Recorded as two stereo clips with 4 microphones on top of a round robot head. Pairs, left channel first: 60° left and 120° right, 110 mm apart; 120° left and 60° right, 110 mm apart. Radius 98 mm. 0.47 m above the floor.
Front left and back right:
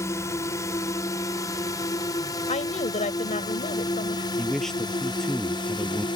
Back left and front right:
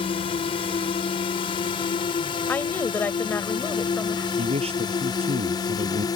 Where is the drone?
115° left; by 6.2 s 80° left.